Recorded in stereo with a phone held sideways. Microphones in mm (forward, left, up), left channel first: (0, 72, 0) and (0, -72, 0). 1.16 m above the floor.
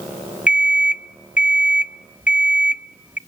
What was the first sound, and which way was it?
An alarm clock, 10° right (ahead or behind).